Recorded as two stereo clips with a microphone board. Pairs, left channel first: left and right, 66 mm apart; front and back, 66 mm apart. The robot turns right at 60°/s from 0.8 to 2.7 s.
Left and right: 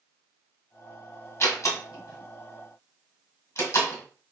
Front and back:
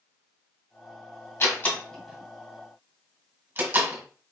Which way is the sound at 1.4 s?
50° left.